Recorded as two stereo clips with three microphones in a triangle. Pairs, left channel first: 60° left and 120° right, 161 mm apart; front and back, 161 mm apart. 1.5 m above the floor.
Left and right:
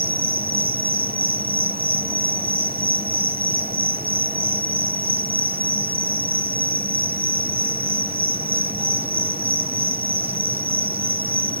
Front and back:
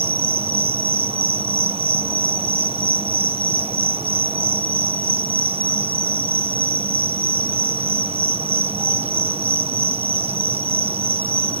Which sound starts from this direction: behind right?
An insect, at 0.0 s.